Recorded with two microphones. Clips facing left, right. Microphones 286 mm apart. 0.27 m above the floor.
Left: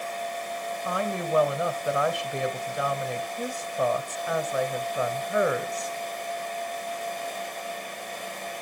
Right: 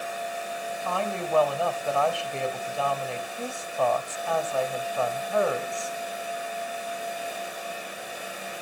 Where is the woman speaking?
20° left (ahead or behind), 1.1 m.